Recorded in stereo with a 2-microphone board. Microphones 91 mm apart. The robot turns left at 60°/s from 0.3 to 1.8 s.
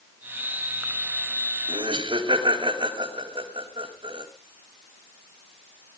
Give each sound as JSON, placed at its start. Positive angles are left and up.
{"t": 1.7, "sound": "laughter", "side_deg": -75, "distance_m": 3.0}